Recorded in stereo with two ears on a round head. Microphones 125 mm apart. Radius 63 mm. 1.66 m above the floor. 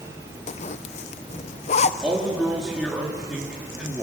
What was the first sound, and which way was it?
A zipper, 50° left (ahead or behind).